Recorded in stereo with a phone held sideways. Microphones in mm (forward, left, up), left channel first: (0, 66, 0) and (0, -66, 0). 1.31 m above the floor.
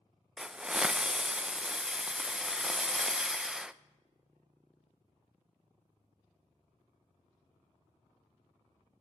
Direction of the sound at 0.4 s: 5° right (ahead or behind).